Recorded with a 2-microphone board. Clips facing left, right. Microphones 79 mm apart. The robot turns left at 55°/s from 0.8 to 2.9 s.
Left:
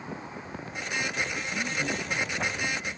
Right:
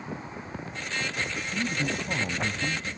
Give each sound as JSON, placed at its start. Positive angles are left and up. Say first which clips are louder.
{"t": 1.5, "sound": "a man speaking", "louder": "right 2 dB", "azimuth_deg": -15, "distance_m": 1.2}